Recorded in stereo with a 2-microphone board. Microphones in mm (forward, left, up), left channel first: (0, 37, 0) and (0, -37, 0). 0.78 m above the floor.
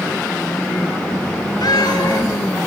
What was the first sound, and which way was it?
A cat meowing, 75° left (ahead or behind).